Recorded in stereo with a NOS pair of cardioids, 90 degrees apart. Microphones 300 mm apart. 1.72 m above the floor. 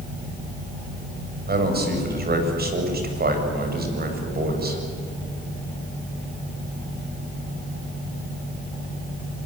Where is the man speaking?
35° right, 7.5 m.